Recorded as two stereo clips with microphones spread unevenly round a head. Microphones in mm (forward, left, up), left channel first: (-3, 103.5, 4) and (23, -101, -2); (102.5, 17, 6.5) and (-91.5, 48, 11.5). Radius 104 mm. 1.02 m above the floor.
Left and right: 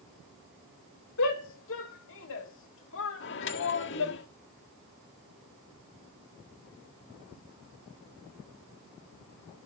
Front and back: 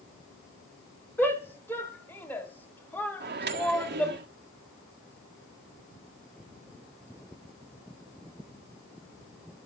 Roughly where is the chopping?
I don't hear chopping.